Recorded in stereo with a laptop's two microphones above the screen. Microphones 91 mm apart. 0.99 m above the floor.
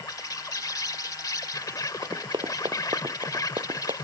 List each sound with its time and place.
0.0 s an insect: 40° left (ahead or behind)
2.0 s running footsteps: 55° right (ahead or behind); by 3.9 s 70° right (ahead or behind)